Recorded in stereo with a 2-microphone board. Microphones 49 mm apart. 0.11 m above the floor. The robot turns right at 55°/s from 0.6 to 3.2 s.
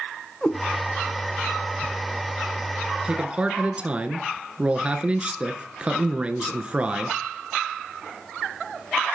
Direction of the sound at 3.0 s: 20° right (ahead or behind).